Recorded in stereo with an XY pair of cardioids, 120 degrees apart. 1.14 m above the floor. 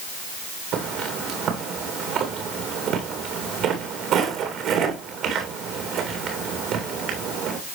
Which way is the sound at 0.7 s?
70° right.